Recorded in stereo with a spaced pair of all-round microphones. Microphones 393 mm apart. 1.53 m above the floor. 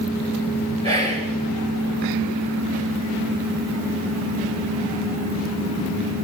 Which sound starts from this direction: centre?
Whispering, at 0.8 s.